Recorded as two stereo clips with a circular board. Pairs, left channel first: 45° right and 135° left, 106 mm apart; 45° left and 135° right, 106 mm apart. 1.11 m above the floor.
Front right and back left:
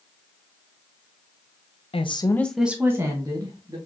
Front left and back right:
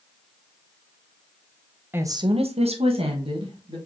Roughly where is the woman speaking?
Ahead right.